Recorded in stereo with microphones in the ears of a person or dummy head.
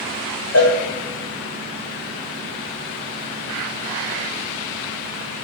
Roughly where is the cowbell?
Left.